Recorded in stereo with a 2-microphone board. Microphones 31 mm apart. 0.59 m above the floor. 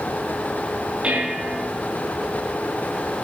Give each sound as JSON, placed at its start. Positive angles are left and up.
{"t": 1.0, "sound": "dishes clattering", "side_deg": -30, "distance_m": 6.0}